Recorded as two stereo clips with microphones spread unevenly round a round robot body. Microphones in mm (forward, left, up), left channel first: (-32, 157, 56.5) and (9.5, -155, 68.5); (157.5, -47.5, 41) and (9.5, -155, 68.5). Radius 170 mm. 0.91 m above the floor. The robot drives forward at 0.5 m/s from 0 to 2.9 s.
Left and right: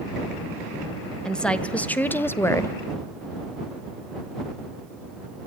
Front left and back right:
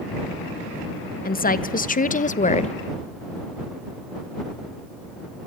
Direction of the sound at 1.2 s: 10° left.